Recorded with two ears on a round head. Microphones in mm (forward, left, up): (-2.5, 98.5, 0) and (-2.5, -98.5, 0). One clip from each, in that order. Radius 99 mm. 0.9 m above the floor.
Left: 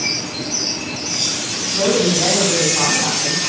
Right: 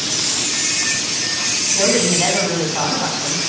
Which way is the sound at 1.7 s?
70° right (ahead or behind).